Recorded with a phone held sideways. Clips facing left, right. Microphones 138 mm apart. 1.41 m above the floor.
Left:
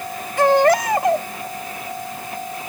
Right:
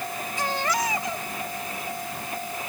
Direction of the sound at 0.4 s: 75° left (ahead or behind).